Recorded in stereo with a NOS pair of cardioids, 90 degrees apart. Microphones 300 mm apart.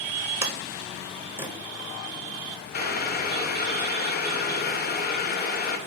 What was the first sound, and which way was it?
A sliding door, 10° right.